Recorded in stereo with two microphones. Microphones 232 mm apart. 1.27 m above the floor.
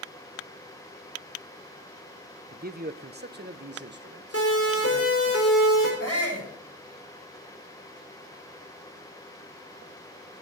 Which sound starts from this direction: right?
A man speaking, at 2.5 s.